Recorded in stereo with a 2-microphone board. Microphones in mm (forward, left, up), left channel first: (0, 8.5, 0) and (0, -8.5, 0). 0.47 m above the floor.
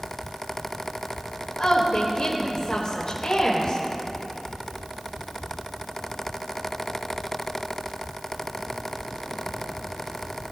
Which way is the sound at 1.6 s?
55° left (ahead or behind).